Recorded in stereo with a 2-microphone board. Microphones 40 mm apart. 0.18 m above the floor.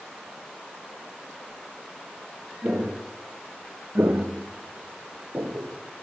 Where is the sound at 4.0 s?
70° right (ahead or behind), 2 m; by 5.8 s 75° right (ahead or behind), 3 m.